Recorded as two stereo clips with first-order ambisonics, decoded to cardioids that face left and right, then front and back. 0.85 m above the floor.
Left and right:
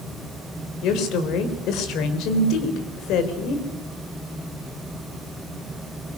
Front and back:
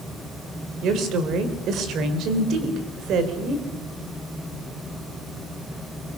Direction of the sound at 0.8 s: 130° left.